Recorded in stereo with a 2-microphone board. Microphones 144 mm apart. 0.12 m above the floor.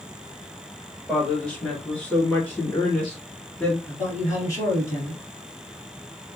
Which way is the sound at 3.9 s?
20° left (ahead or behind).